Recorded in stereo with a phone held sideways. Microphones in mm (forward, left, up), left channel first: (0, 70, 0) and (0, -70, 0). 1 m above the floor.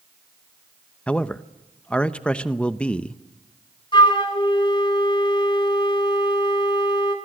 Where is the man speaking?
5° left (ahead or behind), 0.8 m.